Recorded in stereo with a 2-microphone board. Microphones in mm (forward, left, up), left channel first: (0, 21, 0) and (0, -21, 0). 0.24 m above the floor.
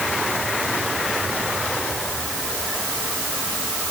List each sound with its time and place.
Only background noise.